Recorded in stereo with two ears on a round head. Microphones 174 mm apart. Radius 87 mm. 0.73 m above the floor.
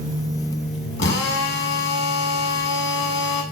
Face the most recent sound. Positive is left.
turn(degrees=65)  # may be behind; listen again after turning